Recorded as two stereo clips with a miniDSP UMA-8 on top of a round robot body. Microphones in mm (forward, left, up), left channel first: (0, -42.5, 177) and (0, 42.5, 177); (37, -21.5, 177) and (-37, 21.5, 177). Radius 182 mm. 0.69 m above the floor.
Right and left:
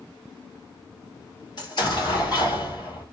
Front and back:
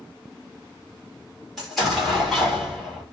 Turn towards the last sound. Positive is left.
turn(degrees=-120)